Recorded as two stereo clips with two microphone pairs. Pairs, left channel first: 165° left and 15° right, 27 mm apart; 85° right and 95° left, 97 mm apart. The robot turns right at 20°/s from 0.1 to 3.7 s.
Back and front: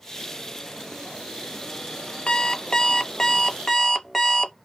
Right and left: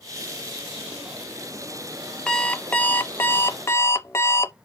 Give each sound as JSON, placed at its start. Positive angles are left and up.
{"t": 2.3, "sound": "an alarm clock", "azimuth_deg": -160, "distance_m": 0.5}